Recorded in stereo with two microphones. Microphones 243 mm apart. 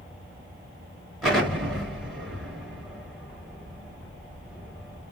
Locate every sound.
1.2 s an explosion: centre (ahead or behind), 2 m